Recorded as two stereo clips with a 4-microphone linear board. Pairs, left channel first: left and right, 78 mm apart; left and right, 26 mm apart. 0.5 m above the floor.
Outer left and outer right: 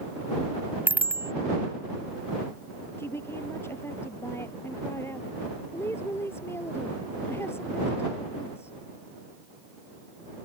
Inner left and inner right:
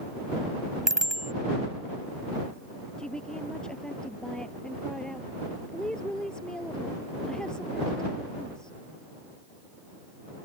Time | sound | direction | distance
0.9 | a bicycle bell | 25° right (ahead or behind) | ?
3.0 | a woman speaking | 35° left (ahead or behind) | ?